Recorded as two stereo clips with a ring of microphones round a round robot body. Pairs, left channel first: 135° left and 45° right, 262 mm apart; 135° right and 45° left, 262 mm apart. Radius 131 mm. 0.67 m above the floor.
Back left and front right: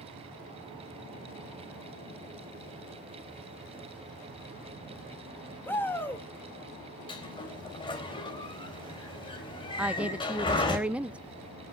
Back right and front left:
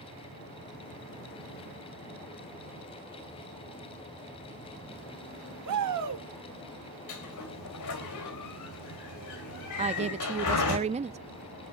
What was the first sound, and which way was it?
A shout, 55° left.